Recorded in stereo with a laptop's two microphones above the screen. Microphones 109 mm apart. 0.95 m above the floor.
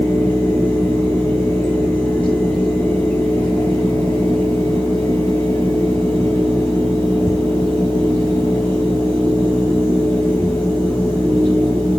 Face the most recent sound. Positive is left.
turn(degrees=20)  # may be behind; listen again after turning